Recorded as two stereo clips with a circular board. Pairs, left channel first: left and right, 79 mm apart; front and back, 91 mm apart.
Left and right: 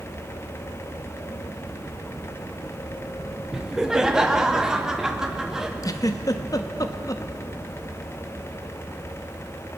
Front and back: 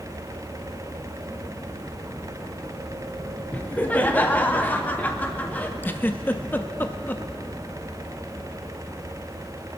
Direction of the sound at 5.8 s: 65° left.